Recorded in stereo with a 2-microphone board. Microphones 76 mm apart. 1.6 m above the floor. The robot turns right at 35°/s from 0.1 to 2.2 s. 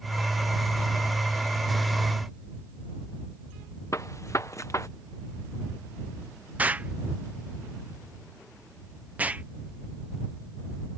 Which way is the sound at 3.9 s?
45° left (ahead or behind).